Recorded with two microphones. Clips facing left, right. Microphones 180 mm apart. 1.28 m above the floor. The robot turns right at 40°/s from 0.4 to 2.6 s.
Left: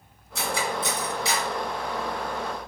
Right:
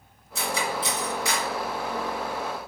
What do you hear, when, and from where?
0.3 s cutlery clinking: 60° left (ahead or behind), 1.7 m; by 1.5 s 20° left (ahead or behind), 1.7 m